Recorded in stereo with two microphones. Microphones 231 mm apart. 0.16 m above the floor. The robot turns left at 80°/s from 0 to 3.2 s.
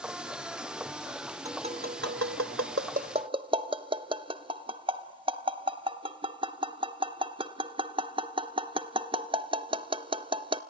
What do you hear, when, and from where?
1.4 s tapping: 15° right (ahead or behind), 0.7 m; by 10.6 s 25° right (ahead or behind), 0.7 m